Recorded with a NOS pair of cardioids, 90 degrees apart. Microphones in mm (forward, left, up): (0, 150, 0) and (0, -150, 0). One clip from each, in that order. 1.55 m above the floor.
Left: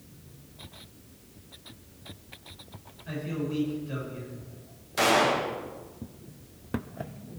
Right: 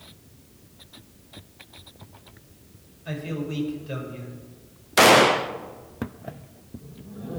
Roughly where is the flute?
I don't hear a flute.